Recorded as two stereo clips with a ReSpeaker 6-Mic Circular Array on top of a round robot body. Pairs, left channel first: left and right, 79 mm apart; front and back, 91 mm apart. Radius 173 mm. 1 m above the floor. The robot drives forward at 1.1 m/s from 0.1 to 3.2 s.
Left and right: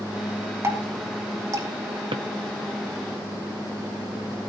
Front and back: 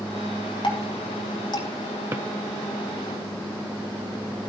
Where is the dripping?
35° right, 5 m; by 1.7 s 45° right, 4 m.